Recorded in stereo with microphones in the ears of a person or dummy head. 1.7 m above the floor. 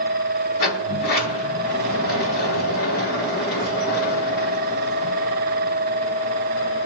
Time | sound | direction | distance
0.6 | a sliding door | 60° left (ahead or behind) | 3.5 m